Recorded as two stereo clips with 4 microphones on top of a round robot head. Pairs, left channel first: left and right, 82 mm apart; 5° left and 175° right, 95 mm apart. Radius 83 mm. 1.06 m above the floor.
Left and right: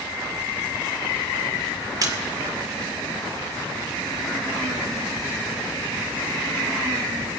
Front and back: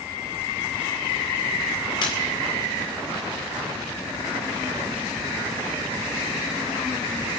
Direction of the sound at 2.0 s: 45° right.